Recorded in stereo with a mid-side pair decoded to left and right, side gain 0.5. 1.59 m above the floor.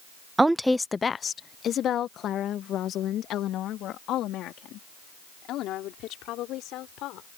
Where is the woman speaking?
20° right; by 7.3 s 75° left.